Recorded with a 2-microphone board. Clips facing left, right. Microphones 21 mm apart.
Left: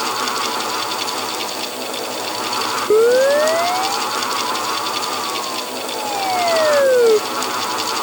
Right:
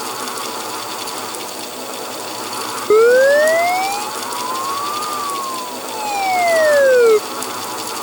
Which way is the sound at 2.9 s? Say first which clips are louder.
Right 3 dB; 40° right (ahead or behind).